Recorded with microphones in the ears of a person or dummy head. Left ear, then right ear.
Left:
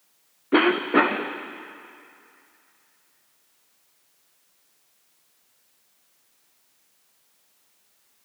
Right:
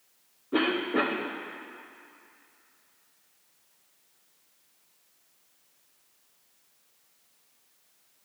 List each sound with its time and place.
0.5 s a cough: 65° left (ahead or behind), 0.8 m